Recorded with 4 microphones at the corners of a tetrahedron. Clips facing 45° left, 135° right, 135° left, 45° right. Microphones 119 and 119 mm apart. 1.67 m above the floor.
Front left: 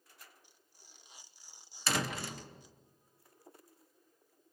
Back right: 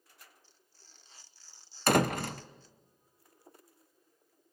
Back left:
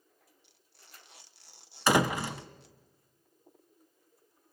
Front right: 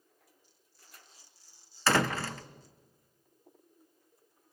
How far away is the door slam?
About 0.8 m.